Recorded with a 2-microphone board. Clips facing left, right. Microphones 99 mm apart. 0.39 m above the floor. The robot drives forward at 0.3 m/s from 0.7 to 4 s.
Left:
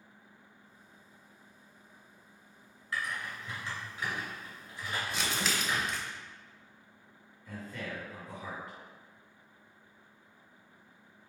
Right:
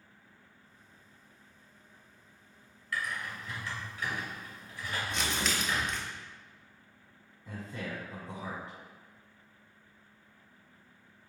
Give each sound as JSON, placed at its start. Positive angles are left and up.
{"t": 2.9, "sound": "typing on a keyboard", "side_deg": 30, "distance_m": 1.7}
{"t": 5.1, "sound": "crumpling", "side_deg": 5, "distance_m": 0.6}
{"t": 7.5, "sound": "a man speaking", "side_deg": -30, "distance_m": 1.4}